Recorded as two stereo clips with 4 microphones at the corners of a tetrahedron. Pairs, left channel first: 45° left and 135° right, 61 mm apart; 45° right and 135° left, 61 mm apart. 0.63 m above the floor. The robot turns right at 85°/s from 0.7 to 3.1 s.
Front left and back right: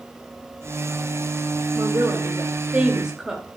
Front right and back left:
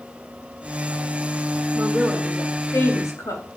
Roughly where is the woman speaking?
Behind.